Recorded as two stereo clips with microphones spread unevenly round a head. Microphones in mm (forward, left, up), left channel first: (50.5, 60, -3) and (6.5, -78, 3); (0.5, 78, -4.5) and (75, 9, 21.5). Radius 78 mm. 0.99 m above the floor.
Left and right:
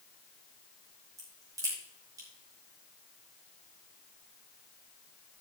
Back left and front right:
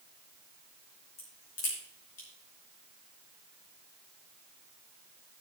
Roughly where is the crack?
Behind.